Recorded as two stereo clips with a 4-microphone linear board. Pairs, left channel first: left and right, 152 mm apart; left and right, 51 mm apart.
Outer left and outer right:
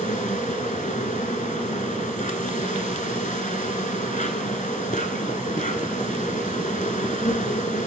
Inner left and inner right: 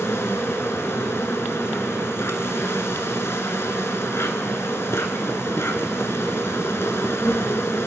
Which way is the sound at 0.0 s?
55° left (ahead or behind).